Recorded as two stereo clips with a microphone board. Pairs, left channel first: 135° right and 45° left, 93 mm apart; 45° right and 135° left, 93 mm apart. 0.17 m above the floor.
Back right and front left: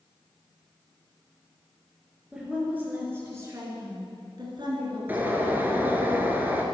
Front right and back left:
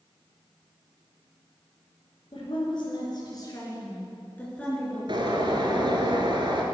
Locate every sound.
2.3 s a woman speaking: 35° right, 3.5 m; by 5.9 s 55° left, 3.5 m
5.1 s a bird: 115° left, 1.3 m